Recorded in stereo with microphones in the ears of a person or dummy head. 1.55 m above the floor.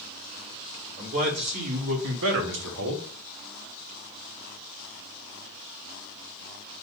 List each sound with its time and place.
1.0 s a man speaking: 50° right (ahead or behind), 1.7 m; by 3.0 s 75° right (ahead or behind), 1.1 m